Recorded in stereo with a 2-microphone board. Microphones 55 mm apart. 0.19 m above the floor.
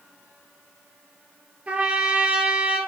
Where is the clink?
I don't hear a clink.